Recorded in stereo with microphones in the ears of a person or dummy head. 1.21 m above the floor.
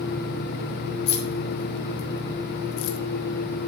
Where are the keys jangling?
65° left (ahead or behind), 3 m; by 3.0 s 85° left, 1.8 m.